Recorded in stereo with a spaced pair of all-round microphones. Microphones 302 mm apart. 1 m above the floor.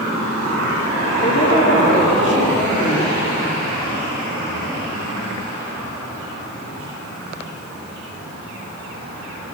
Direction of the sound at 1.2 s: 40° left (ahead or behind).